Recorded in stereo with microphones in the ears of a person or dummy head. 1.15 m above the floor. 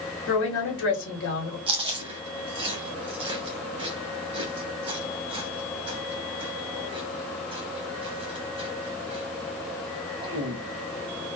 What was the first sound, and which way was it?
A woman speaking, 65° left (ahead or behind).